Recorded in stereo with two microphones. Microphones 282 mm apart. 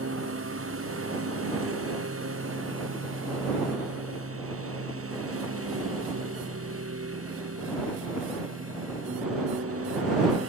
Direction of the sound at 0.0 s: 50° right (ahead or behind).